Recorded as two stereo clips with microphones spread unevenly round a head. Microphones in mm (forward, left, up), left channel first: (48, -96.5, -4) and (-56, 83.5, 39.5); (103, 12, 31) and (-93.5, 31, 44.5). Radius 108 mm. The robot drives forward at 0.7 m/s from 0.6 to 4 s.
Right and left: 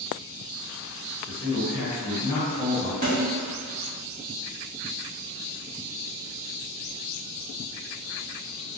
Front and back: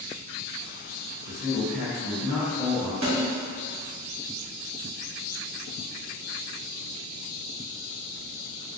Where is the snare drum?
160° left, 1.8 m; by 3.3 s 165° left, 2.0 m.